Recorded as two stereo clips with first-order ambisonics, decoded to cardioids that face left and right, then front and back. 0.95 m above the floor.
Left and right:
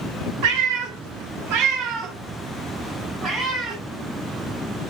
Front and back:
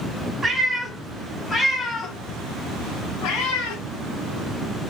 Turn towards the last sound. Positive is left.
turn(degrees=-10)